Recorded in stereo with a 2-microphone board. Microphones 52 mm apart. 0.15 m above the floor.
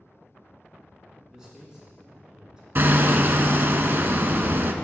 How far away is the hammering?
About 0.5 m.